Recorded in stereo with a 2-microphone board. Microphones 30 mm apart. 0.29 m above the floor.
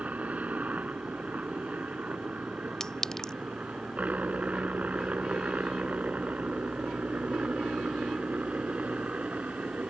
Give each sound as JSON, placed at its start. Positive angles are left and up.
{"t": 0.0, "sound": "a helicopter", "side_deg": -55}
{"t": 2.8, "sound": "a clink", "side_deg": 20}